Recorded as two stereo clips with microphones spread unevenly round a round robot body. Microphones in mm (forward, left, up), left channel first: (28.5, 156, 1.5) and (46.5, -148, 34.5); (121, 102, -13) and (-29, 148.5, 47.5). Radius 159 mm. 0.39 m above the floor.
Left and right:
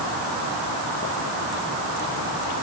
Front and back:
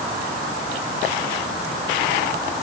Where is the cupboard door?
I don't hear a cupboard door.